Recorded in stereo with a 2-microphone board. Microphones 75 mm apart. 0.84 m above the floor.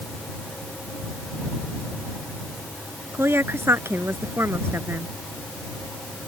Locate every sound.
3.1 s a woman speaking: 30° right (ahead or behind)